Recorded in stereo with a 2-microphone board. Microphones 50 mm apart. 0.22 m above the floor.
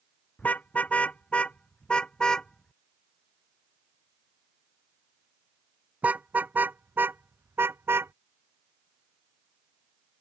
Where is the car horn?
30° left (ahead or behind); by 8.1 s 50° right (ahead or behind).